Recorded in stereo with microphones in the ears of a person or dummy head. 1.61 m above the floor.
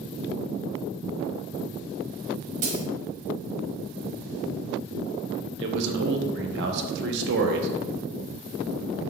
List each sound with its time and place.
2.6 s a dropped coin: 45° right (ahead or behind), 1.6 m
5.6 s a man speaking: 65° right (ahead or behind), 0.7 m